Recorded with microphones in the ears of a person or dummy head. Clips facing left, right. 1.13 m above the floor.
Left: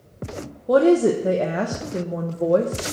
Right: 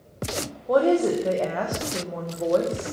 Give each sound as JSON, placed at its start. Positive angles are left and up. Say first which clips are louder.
{"t": 0.7, "sound": "a woman speaking", "louder": "left 4 dB", "side_deg": 30, "distance_m": 0.6}